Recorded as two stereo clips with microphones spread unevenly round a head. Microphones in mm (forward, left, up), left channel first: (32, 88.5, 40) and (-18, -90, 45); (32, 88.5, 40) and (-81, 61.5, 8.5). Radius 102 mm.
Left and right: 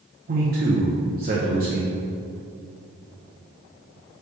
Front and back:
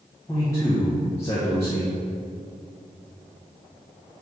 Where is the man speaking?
65° right, 1.0 m.